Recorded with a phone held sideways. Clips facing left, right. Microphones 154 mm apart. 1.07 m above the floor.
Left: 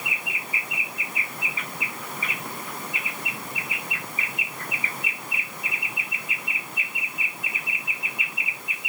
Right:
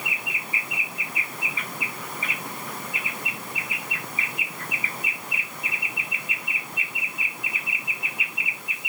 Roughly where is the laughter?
I don't hear laughter.